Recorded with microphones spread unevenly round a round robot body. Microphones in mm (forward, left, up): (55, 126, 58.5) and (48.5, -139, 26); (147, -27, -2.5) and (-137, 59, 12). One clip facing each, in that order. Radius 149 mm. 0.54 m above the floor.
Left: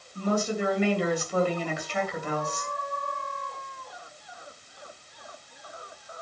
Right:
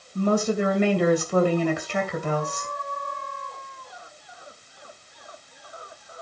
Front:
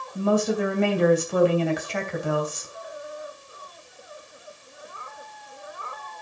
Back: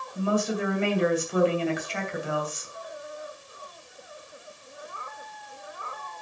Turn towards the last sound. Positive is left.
turn(degrees=-60)